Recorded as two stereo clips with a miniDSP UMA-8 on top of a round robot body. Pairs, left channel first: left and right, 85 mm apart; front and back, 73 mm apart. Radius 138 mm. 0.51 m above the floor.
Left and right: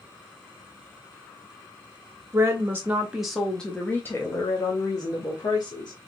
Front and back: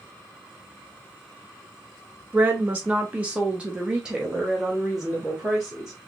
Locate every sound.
2.3 s a woman speaking: 120° right, 1.2 m; by 5.9 s 90° left, 1.8 m